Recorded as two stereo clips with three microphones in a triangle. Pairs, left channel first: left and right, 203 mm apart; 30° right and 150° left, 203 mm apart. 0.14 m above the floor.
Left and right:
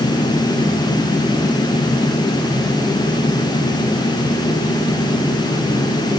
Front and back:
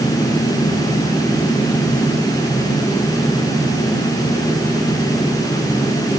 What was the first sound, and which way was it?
Only background noise.